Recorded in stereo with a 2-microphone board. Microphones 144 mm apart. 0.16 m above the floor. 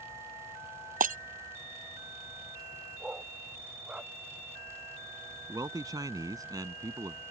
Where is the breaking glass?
70° right (ahead or behind).